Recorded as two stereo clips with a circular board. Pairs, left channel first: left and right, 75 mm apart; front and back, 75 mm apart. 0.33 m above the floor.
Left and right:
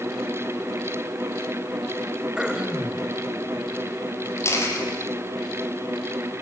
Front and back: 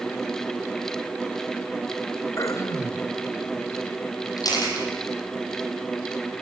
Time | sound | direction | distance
2.4 | throat clearing | 15° right | 1.8 m
4.4 | a camera shutter | 35° left | 5.5 m